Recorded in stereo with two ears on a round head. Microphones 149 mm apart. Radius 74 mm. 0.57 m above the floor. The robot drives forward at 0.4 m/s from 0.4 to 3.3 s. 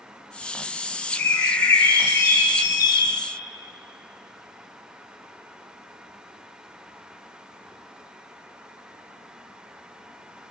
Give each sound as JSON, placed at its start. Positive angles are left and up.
{"t": 1.1, "sound": "a bird", "side_deg": 15, "distance_m": 1.5}